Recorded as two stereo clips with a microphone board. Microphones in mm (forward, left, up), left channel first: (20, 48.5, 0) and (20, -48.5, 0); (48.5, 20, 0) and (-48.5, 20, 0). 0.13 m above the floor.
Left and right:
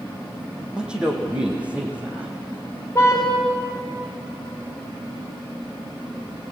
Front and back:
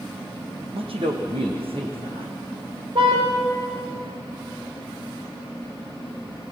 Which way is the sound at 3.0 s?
155° left.